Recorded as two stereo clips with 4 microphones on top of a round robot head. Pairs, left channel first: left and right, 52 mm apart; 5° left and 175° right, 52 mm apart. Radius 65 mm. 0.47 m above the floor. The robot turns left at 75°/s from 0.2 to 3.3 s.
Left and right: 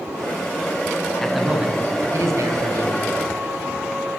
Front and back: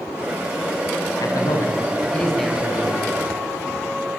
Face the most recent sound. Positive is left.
turn(degrees=-150)